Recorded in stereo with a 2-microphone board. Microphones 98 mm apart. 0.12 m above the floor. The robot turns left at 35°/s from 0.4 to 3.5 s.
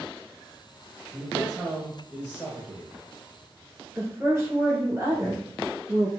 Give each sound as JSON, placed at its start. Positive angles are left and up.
{"t": 1.1, "sound": "a man speaking", "side_deg": -10, "distance_m": 1.4}
{"t": 4.0, "sound": "a woman speaking", "side_deg": -30, "distance_m": 1.7}